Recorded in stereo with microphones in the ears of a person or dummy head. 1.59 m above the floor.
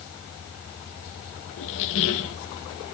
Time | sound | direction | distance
1.6 | a squeak | 60° left (ahead or behind) | 1.3 m